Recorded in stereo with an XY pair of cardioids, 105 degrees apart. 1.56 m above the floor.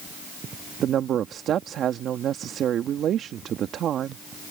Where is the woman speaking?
60° right.